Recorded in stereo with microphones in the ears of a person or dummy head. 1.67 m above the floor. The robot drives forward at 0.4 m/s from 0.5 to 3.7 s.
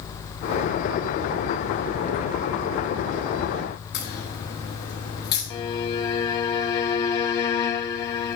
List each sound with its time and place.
3.9 s a crack: 55° left (ahead or behind), 3 m
5.5 s a violin: 25° left (ahead or behind), 0.6 m